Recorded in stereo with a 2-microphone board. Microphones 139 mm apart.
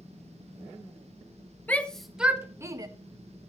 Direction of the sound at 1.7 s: 10° left (ahead or behind).